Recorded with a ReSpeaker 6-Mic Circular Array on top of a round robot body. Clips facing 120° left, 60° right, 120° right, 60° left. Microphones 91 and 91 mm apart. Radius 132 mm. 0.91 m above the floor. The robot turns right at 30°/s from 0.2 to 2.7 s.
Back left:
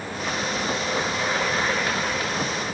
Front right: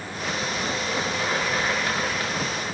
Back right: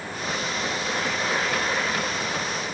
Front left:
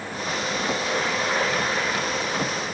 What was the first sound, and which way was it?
Only background noise.